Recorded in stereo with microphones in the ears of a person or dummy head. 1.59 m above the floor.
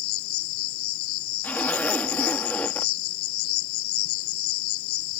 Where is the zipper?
15° left (ahead or behind).